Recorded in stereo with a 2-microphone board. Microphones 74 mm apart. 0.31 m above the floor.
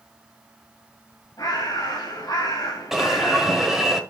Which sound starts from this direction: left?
A bird, at 1.4 s.